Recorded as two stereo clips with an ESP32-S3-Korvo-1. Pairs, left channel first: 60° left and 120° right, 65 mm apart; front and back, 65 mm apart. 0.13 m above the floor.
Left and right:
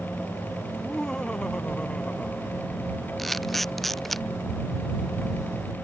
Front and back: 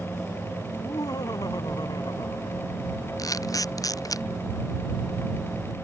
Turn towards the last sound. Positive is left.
turn(degrees=-30)